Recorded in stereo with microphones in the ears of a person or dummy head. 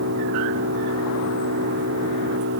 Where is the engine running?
60° right (ahead or behind).